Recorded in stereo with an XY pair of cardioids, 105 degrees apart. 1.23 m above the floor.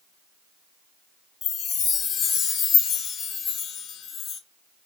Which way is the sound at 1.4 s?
65° left.